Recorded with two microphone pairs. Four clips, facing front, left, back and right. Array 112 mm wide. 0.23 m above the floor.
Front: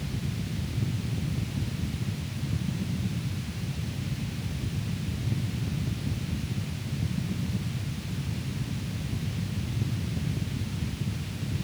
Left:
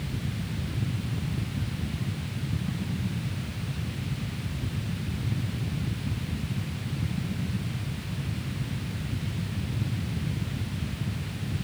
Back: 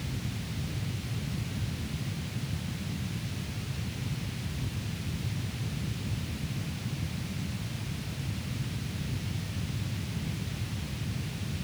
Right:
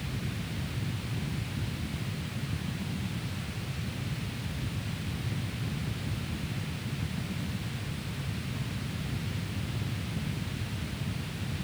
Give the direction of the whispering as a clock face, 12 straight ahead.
I don't hear whispering.